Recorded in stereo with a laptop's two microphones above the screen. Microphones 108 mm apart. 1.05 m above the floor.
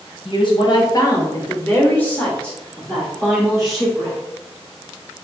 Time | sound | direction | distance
0.2 | a woman speaking | 50° left (ahead or behind) | 1.1 m